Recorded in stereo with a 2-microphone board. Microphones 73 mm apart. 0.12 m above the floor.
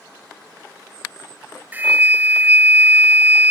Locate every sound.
1.7 s a flute: 25° right (ahead or behind)